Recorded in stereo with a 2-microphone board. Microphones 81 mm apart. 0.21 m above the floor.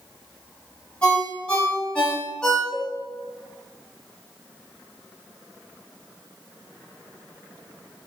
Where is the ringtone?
10° left (ahead or behind), 1.1 m.